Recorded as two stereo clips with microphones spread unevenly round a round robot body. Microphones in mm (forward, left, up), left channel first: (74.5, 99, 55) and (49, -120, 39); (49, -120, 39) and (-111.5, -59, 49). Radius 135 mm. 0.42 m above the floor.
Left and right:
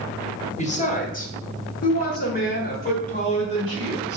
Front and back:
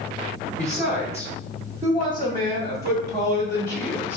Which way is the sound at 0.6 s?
45° left.